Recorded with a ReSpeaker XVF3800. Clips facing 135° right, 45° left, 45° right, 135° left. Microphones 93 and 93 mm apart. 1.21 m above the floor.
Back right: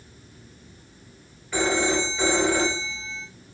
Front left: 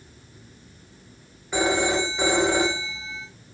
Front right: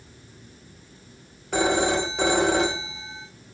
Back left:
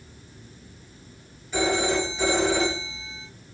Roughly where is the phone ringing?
Ahead right.